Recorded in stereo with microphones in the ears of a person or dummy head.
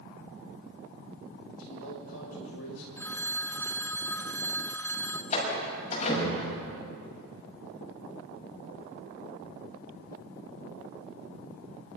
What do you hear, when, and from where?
1.6 s a man speaking: 85° left, 7 m
3.0 s a phone ringing: 10° left (ahead or behind), 1.2 m
5.3 s a door slam: 45° left (ahead or behind), 7.5 m